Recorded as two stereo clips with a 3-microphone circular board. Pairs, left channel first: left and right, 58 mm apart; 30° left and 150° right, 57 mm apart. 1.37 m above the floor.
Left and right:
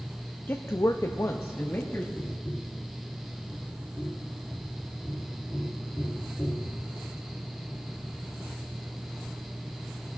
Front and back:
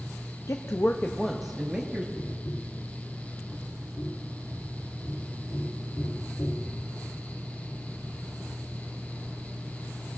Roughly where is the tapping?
Ahead left.